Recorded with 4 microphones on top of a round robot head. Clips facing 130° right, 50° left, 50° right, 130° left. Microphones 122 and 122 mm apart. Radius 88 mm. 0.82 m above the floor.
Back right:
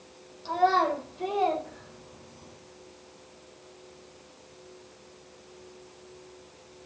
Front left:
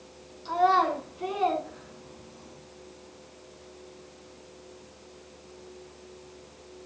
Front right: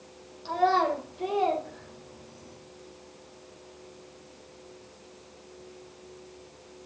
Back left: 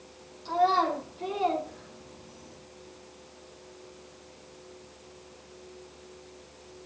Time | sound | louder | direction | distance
0.5 | a child speaking | front left 1 dB, even | 85° right | 1.8 m